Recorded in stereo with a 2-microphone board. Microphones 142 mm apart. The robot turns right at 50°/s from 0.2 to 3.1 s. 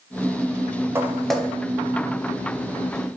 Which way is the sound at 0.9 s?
15° right (ahead or behind).